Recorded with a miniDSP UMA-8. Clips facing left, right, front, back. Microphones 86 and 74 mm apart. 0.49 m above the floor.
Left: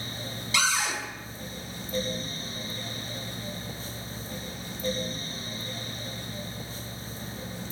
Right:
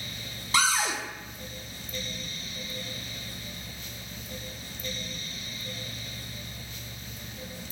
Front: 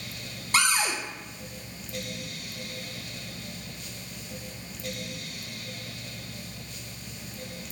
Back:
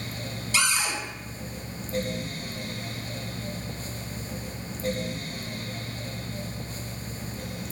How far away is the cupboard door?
About 0.5 m.